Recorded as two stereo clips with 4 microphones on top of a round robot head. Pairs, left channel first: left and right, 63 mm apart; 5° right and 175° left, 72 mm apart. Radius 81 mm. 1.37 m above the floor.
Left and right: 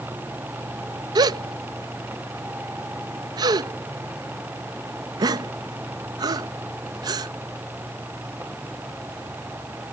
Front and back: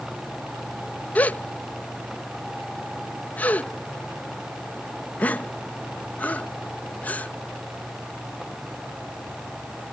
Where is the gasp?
80° right.